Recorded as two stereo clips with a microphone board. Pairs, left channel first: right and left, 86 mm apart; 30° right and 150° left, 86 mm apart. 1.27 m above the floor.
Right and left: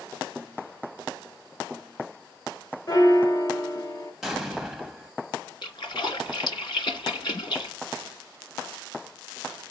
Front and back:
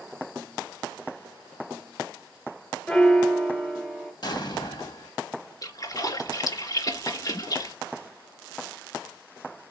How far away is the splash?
About 3 m.